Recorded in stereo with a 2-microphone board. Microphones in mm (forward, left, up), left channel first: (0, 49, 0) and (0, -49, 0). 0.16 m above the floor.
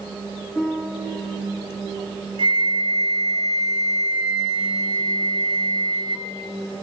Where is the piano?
10° left (ahead or behind), 1.7 m.